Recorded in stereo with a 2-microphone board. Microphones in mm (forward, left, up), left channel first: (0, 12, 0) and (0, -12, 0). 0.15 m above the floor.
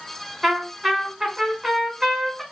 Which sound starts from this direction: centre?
A trumpet, at 0.4 s.